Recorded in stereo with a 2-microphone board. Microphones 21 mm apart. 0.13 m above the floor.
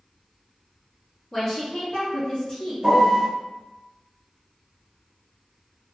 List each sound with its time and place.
1.3 s a woman speaking: 30° left (ahead or behind), 1.4 m; by 2.7 s 35° left (ahead or behind), 1.9 m
2.8 s a piano: 25° right (ahead or behind), 1.1 m